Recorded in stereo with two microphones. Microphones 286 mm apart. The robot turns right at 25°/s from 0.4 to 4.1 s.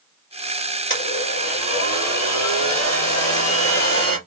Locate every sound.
0.9 s a blender: 45° left, 4 m; by 4.2 s 125° left, 4 m